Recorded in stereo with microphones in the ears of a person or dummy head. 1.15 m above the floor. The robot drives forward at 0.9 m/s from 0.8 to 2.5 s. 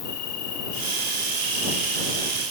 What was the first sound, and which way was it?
An insect, 50° left (ahead or behind).